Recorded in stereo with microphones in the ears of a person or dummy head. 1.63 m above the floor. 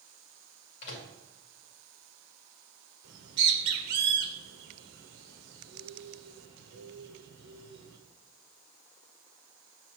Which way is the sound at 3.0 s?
60° right (ahead or behind).